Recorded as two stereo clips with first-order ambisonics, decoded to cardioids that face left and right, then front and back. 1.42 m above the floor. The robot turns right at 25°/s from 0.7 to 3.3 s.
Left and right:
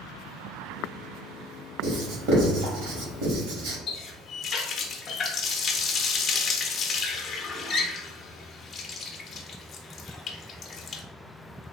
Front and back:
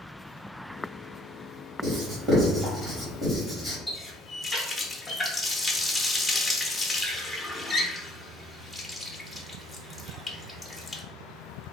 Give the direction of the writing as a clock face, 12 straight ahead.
4 o'clock.